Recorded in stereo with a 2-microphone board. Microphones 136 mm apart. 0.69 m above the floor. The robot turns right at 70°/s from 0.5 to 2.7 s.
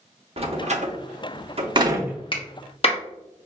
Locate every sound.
0.4 s a door slam: 45° right (ahead or behind), 0.7 m; by 2.2 s 10° right (ahead or behind), 0.7 m
2.3 s a clap: 40° left (ahead or behind), 0.9 m; by 3.0 s 45° left (ahead or behind), 0.9 m